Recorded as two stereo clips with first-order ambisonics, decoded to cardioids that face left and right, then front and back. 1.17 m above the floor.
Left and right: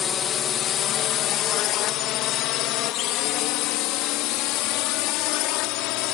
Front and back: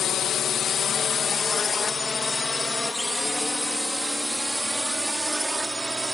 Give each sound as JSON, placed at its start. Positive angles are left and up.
{"t": 0.0, "sound": "a drone", "azimuth_deg": 45}